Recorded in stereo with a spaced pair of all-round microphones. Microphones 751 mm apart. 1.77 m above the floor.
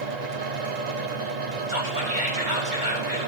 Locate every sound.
0.0 s a fan: 65° right (ahead or behind), 0.9 m
1.7 s whispering: 85° right, 3.5 m